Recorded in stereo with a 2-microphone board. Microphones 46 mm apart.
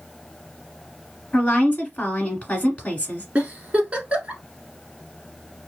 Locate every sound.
1.3 s a woman speaking: 30° left (ahead or behind), 1.3 m
3.4 s a giggle: 30° right (ahead or behind), 1.0 m